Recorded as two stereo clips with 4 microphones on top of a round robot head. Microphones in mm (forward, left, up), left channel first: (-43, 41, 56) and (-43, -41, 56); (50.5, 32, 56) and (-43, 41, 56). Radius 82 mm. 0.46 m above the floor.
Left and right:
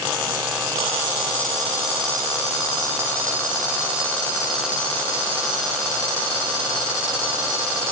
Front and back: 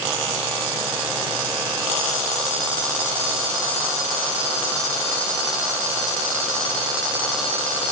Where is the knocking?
I don't hear knocking.